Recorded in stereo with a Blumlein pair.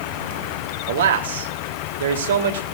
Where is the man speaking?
65° right, 3 m.